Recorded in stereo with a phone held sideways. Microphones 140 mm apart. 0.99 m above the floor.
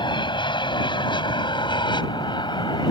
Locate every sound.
0.0 s an aircraft: 35° left (ahead or behind)